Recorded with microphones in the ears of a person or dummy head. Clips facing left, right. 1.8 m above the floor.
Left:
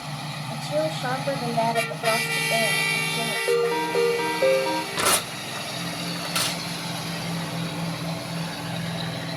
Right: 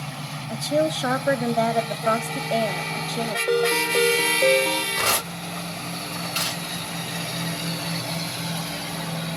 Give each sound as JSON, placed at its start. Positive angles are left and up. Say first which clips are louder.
{"t": 0.5, "sound": "a woman speaking", "louder": "right 4 dB", "side_deg": -25, "distance_m": 0.8}
{"t": 3.5, "sound": "a ringtone", "louder": "left 1 dB", "side_deg": 15, "distance_m": 1.4}
{"t": 5.0, "sound": "tearing paper", "louder": "left 1 dB", "side_deg": 45, "distance_m": 1.2}